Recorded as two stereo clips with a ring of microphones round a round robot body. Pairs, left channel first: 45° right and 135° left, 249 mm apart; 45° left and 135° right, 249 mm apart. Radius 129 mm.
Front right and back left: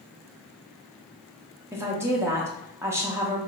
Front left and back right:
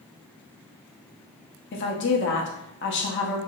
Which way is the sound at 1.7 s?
60° left.